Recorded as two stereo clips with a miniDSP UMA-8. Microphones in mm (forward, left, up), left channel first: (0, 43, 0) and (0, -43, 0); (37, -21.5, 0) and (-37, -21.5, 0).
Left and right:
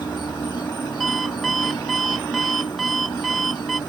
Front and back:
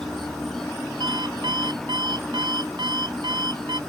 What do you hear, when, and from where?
0.0 s an insect: 85° left
1.0 s an alarm clock: straight behind